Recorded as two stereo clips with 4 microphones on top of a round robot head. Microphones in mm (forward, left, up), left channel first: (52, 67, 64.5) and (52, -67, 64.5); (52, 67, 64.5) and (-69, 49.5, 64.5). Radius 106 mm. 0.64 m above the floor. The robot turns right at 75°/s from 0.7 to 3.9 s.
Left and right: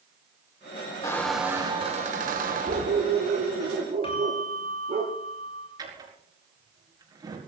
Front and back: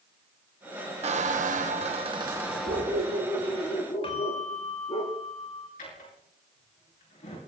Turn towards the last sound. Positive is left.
turn(degrees=-30)